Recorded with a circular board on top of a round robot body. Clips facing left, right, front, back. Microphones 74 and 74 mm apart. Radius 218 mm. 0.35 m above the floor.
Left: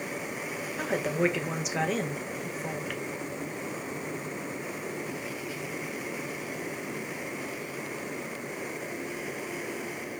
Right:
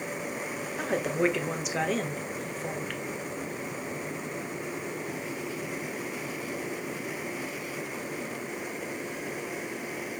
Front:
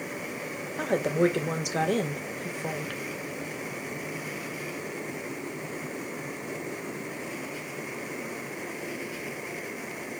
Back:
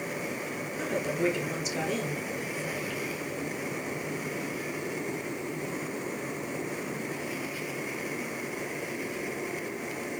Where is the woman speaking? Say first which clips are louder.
Even, front 5 dB; straight ahead, 1.7 m.